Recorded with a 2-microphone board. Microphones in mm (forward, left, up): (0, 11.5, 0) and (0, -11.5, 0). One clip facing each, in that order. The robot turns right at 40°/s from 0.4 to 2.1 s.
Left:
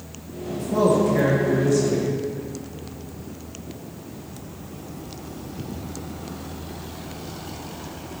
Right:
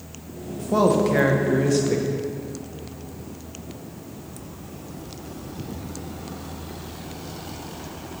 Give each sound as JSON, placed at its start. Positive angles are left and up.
{"t": 0.7, "sound": "a man speaking", "azimuth_deg": -130, "distance_m": 0.8}